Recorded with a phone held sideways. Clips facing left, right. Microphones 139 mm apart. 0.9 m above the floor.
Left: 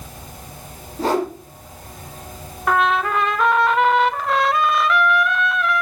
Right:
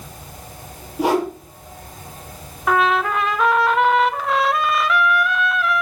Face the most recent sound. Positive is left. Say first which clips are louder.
# right 1 dB
turn(degrees=0)  # may be behind; listen again after turning